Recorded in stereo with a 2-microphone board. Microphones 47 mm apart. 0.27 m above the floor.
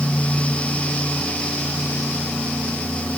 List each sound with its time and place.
Only background noise.